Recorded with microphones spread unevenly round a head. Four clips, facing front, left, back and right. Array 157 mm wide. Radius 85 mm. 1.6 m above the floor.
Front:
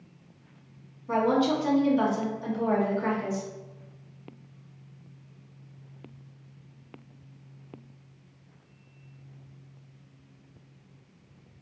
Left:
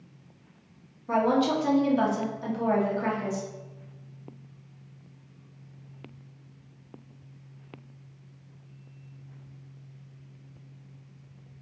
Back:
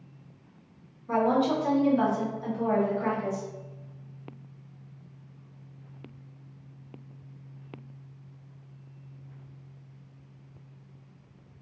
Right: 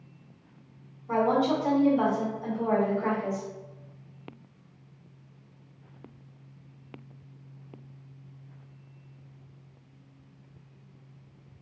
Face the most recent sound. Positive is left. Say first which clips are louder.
# left 1 dB, even
turn(degrees=70)